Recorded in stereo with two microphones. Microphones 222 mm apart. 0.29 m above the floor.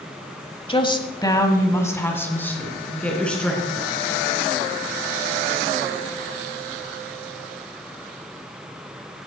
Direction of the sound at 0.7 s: 25° left (ahead or behind).